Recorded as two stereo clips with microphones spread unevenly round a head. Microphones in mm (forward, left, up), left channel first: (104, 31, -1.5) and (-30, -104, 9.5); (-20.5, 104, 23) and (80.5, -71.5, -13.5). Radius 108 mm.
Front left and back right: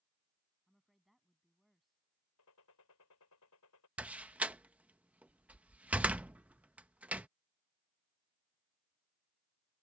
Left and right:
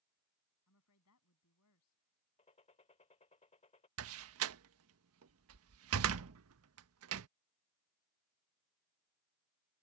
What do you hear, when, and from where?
0.7 s a woman speaking: 135° left
2.4 s a gunshot: 65° left
4.0 s a door slam: 55° right